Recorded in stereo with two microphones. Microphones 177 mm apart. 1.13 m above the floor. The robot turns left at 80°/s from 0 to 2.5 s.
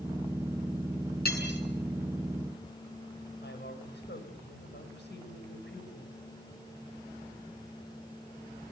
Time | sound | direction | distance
1.2 | cutlery clinking | 60° left (ahead or behind) | 7.5 m
3.4 | a woman speaking | 70° left (ahead or behind) | 6 m